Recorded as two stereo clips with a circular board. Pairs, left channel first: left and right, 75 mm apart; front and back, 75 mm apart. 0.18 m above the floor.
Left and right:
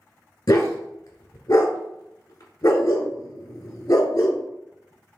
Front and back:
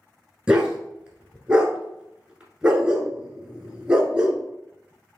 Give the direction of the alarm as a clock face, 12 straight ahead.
No alarm in this recording.